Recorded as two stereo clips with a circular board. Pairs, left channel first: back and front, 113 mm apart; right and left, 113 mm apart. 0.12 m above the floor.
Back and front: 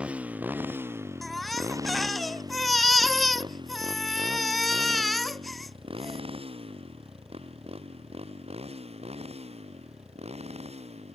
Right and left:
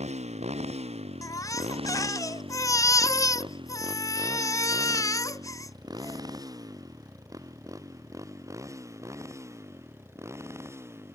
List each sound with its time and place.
0.0 s a motorcycle: 80° left; by 11.2 s 25° left
1.2 s a baby crying: 90° right